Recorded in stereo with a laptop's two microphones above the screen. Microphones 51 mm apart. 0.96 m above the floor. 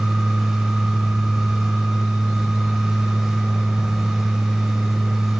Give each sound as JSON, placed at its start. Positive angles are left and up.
{"t": 0.0, "sound": "a machine running", "side_deg": -10, "distance_m": 1.1}